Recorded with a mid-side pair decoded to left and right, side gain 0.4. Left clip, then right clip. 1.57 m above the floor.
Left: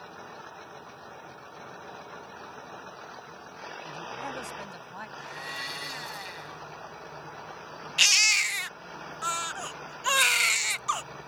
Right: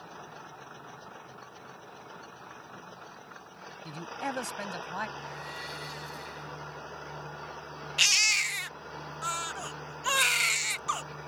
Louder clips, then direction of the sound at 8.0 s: Left 3 dB; 20° left.